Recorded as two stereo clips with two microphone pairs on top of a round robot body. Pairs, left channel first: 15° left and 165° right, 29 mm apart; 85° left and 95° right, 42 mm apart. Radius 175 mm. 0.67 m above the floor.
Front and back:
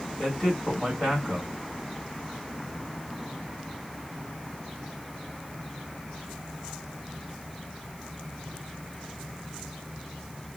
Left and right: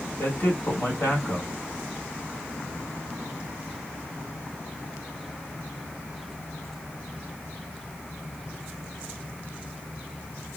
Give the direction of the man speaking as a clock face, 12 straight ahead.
9 o'clock.